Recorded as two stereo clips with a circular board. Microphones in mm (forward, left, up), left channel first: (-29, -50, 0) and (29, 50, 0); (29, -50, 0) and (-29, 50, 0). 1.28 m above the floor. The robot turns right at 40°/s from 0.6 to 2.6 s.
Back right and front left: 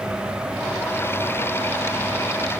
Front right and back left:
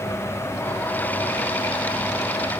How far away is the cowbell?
I don't hear a cowbell.